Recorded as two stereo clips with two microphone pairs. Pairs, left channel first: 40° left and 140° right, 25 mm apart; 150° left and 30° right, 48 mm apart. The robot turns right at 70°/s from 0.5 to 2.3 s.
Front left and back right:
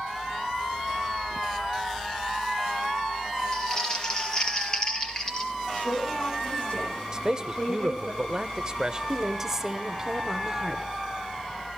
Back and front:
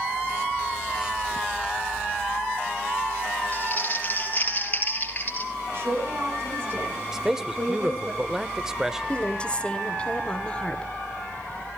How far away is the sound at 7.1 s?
About 0.9 m.